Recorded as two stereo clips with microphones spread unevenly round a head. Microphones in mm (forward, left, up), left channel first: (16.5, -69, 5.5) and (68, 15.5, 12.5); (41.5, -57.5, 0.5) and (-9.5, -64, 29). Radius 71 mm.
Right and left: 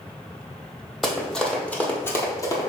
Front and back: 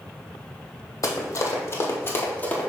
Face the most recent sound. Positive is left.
turn(degrees=-80)